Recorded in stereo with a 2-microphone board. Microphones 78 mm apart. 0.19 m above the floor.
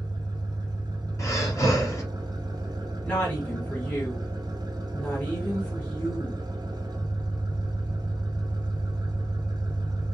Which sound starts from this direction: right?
An engine running, at 0.0 s.